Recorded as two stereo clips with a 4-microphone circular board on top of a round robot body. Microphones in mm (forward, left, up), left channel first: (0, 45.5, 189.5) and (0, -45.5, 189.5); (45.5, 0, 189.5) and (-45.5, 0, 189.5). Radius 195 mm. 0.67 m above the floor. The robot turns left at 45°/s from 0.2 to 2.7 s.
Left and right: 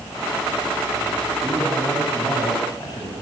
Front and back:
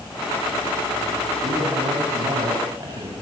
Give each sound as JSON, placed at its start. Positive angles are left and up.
{"t": 1.4, "sound": "a man speaking", "azimuth_deg": -165, "distance_m": 8.0}